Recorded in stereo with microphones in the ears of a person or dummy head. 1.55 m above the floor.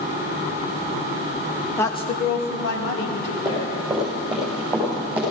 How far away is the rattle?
No rattle in this recording.